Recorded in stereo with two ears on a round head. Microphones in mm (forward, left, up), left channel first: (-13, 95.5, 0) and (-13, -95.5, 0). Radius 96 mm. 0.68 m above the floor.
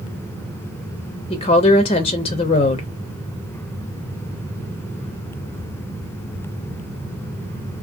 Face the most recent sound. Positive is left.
turn(degrees=25)  # may be behind; listen again after turning